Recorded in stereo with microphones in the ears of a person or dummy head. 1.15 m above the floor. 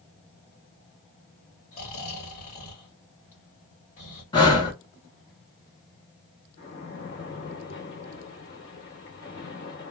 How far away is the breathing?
About 0.9 m.